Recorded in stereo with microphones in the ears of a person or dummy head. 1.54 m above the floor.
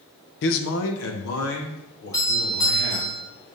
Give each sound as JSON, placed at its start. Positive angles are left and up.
{"t": 0.4, "sound": "a man speaking", "side_deg": 60, "distance_m": 0.8}
{"t": 2.1, "sound": "a doorbell", "side_deg": 20, "distance_m": 3.5}